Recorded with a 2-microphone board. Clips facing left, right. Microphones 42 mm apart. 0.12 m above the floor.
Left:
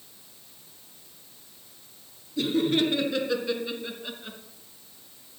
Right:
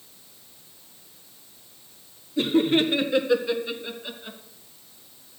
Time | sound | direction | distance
2.4 | laughter | 25° right (ahead or behind) | 2 m